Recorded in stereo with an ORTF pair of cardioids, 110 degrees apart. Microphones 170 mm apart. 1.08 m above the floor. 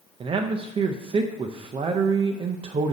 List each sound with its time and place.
0.2 s a man speaking: 35° right, 0.5 m